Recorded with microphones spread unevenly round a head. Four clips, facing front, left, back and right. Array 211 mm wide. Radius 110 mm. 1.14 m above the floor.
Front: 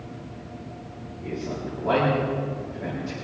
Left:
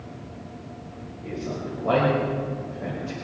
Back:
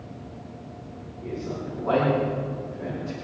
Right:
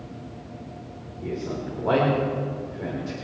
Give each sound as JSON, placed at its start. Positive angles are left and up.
{"t": 1.2, "sound": "a man speaking", "azimuth_deg": -80, "distance_m": 4.5}